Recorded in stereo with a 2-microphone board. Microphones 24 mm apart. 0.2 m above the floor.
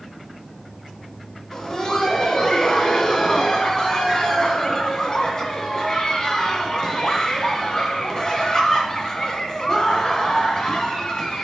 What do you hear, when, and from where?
1.5 s laughter: 25° left (ahead or behind), 1.5 m